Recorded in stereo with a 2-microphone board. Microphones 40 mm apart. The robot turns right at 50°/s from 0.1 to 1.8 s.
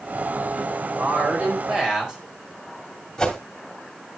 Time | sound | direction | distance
1.0 | a woman speaking | 60° right | 3.5 m
3.2 | a whoosh | 15° left (ahead or behind) | 2 m